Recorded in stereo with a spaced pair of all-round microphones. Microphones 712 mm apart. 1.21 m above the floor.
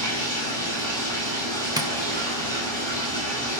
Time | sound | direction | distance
0.0 | running water | 35° right (ahead or behind) | 5.5 m
1.8 | tapping | 5° right (ahead or behind) | 0.9 m